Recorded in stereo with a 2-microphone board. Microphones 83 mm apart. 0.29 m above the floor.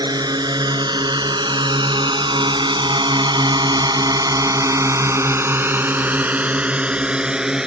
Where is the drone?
50° right (ahead or behind); by 7.7 s 10° right (ahead or behind).